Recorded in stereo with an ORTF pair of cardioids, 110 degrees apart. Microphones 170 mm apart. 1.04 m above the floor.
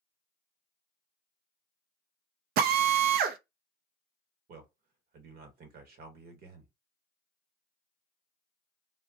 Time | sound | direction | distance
2.6 | a drill | 65° right | 0.5 m
4.5 | a man speaking | 65° right | 1.3 m